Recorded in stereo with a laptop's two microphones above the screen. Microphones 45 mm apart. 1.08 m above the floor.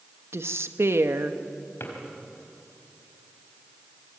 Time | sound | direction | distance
0.3 | a woman speaking | 70° right (ahead or behind) | 1.5 m
1.8 | a drawer | 55° left (ahead or behind) | 4 m